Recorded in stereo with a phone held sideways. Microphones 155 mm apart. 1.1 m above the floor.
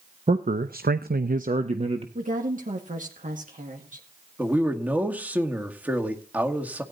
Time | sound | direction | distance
0.3 | a man speaking | 45° right (ahead or behind) | 0.9 m
2.1 | a woman speaking | 55° right (ahead or behind) | 2.0 m
4.4 | a man speaking | 10° right (ahead or behind) | 1.9 m